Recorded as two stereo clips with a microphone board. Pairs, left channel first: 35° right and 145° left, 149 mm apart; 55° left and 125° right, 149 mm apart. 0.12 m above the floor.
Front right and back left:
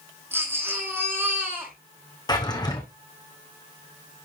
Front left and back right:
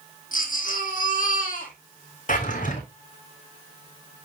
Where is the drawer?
25° left, 1.4 m.